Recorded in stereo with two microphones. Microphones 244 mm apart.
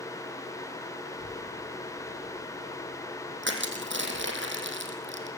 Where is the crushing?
50° right (ahead or behind), 3.5 m.